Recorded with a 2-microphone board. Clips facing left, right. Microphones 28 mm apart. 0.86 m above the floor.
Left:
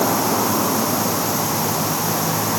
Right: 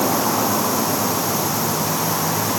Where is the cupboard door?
I don't hear a cupboard door.